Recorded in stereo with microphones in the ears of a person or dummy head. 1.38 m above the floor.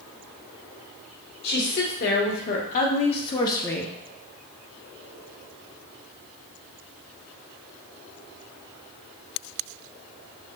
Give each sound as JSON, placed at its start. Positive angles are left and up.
{"t": 1.4, "sound": "a woman speaking", "side_deg": 65, "distance_m": 1.6}